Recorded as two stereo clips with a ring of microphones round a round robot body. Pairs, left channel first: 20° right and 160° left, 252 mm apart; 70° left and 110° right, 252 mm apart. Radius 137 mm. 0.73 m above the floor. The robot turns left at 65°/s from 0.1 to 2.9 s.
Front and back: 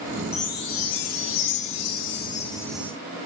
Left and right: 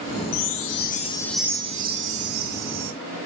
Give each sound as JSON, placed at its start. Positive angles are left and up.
{"t": 0.3, "sound": "a chime", "azimuth_deg": 45, "distance_m": 0.8}